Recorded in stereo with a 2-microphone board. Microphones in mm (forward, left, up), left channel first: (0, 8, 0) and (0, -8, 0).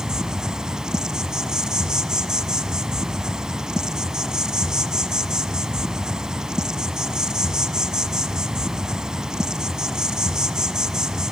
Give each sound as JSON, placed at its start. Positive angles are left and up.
{"t": 0.0, "sound": "an insect", "side_deg": -50, "distance_m": 1.0}